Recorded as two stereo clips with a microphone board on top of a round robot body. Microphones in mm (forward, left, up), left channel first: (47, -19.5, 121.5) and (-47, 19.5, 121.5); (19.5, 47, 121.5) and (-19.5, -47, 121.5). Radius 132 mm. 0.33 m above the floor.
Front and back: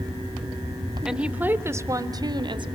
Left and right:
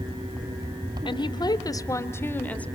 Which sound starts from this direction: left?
A woman speaking, at 1.1 s.